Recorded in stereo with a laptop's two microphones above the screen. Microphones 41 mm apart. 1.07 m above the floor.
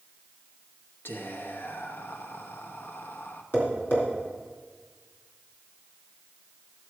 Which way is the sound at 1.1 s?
60° left (ahead or behind).